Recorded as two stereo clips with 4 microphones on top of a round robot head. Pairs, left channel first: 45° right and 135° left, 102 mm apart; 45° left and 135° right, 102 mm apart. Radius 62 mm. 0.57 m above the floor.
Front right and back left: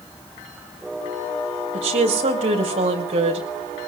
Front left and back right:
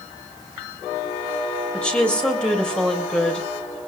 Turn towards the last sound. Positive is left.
turn(degrees=125)